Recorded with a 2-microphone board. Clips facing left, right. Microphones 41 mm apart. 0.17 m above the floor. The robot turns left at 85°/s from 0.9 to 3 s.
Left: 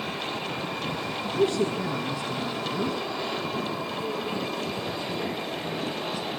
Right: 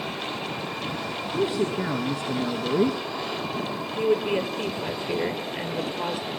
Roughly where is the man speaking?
Ahead.